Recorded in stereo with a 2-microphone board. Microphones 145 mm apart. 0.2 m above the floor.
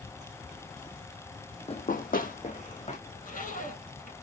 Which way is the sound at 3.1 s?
70° left (ahead or behind).